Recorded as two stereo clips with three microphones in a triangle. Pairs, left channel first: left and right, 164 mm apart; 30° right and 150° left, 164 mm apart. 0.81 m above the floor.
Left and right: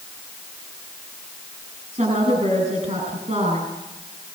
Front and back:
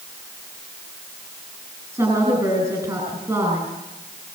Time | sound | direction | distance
1.9 | a woman speaking | 140° right | 8 m